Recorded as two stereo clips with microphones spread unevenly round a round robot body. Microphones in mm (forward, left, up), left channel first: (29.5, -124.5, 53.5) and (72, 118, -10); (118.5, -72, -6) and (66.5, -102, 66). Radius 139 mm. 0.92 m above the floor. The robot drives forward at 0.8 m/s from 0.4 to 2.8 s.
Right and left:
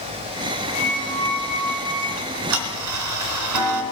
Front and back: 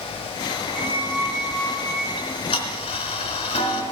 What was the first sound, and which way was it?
A squeak, 155° right.